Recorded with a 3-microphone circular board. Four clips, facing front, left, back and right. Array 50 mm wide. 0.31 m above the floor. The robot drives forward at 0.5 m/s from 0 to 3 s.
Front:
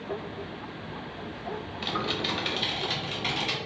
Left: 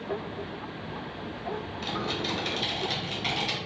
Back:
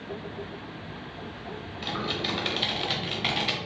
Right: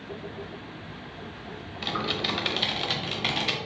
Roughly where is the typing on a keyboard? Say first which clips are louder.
Right 4 dB, even; ahead right.